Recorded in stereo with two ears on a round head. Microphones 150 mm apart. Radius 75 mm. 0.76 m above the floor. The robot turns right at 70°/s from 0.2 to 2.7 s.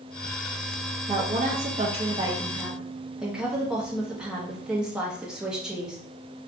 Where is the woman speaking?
120° right, 0.8 m; by 6.0 s 10° right, 0.8 m.